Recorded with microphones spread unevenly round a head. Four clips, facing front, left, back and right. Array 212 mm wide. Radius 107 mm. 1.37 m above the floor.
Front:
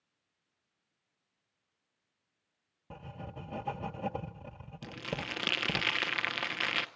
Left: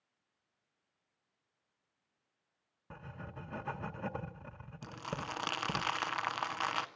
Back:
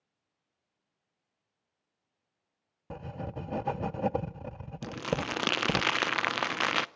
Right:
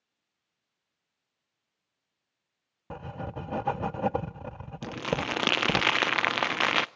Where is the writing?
130° right, 0.7 m.